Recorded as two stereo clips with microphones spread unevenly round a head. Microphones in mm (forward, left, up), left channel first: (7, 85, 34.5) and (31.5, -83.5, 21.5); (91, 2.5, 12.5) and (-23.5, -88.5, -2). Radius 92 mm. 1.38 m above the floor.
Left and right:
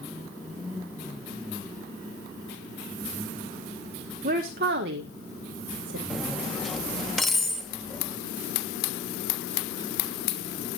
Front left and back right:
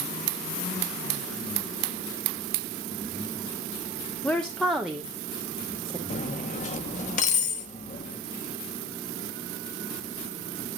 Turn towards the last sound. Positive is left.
turn(degrees=10)